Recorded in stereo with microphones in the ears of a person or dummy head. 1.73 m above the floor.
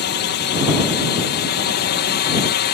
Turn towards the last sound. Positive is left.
turn(degrees=50)  # may be behind; listen again after turning